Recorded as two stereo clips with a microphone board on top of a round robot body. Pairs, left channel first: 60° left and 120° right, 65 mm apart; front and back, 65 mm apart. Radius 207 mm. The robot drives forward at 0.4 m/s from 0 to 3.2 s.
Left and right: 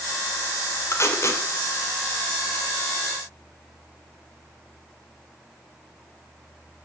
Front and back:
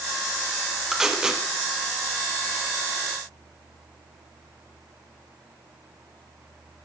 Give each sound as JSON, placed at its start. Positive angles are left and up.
{"t": 0.9, "sound": "tape being pulled", "azimuth_deg": 95, "distance_m": 2.5}